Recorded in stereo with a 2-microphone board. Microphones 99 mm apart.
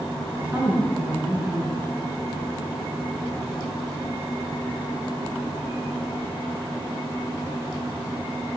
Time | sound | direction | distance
0.3 | a woman speaking | 20° right (ahead or behind) | 2.5 m